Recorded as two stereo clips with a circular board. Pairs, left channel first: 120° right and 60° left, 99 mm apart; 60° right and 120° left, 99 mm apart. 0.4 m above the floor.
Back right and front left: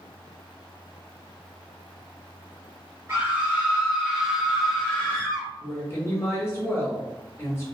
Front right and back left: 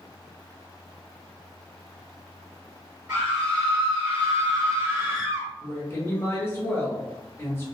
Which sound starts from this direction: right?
A woman speaking, at 5.6 s.